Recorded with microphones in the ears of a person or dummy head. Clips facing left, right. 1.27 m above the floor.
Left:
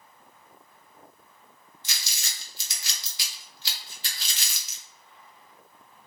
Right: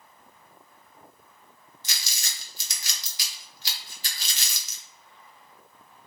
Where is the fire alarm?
No fire alarm in this recording.